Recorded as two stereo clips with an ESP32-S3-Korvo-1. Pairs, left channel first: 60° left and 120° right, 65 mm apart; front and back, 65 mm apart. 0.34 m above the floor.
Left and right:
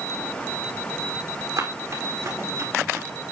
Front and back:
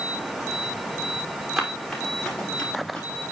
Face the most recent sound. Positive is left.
turn(degrees=-70)